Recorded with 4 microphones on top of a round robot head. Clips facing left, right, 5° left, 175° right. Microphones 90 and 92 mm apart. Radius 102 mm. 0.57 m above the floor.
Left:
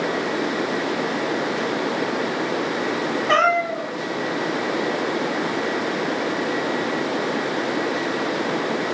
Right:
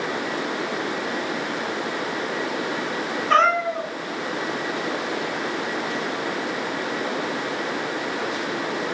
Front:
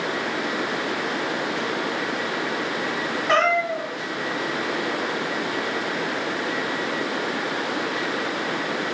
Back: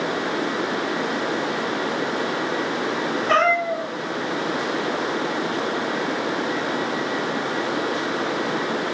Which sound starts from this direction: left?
A cat meowing, at 3.3 s.